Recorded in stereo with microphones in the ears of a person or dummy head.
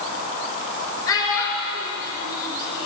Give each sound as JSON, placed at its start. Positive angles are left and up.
{"t": 1.1, "sound": "a child speaking", "side_deg": 20, "distance_m": 4.0}